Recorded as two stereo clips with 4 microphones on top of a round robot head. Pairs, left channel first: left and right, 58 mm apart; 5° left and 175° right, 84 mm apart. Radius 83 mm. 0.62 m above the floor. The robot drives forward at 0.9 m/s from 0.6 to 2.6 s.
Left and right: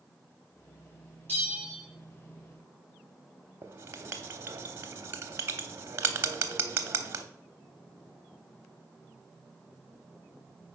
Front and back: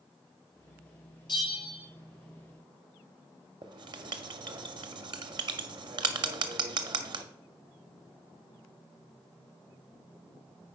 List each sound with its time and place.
1.3 s a bell: 35° left, 3.5 m; by 1.8 s 40° left, 3 m
3.6 s writing: 145° right, 0.7 m